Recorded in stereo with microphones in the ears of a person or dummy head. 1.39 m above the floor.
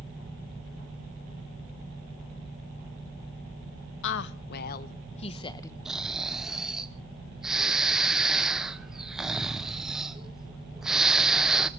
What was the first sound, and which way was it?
A woman speaking, 70° left (ahead or behind).